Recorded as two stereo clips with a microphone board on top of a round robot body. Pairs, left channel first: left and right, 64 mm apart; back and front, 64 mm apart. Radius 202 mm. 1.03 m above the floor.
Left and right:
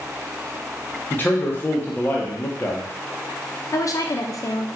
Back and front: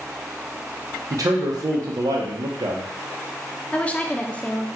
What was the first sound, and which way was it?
A man speaking, 30° left.